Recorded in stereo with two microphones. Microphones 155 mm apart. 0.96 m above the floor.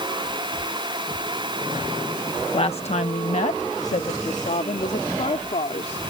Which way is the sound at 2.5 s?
35° left (ahead or behind).